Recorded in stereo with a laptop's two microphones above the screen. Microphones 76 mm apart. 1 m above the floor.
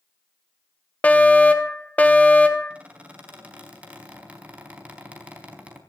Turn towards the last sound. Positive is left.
turn(degrees=-15)  # may be behind; listen again after turning